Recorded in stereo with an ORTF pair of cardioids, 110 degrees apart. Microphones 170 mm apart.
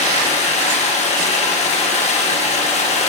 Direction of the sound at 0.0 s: 40° left.